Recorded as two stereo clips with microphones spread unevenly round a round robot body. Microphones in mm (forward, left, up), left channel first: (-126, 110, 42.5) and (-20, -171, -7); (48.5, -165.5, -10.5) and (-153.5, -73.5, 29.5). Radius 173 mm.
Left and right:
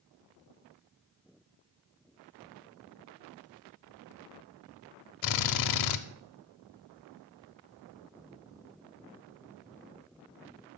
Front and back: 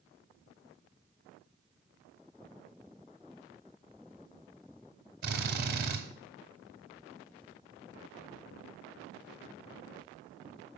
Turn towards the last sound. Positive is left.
turn(degrees=95)